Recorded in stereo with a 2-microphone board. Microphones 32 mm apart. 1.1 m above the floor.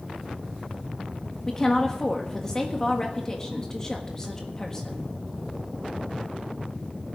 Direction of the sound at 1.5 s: 20° left (ahead or behind).